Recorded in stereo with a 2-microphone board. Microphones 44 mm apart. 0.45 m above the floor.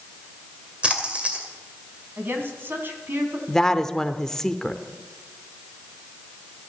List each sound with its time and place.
0.8 s a splash: 25° right (ahead or behind), 2.5 m
2.2 s a woman speaking: 55° right (ahead or behind), 3 m
3.5 s a woman speaking: 10° left (ahead or behind), 0.9 m